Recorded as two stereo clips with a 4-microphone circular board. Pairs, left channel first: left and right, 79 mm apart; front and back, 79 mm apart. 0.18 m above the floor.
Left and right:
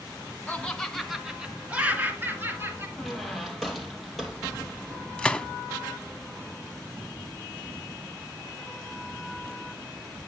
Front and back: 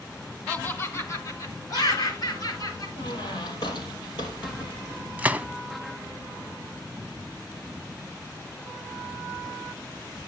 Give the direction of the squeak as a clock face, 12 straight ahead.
12 o'clock.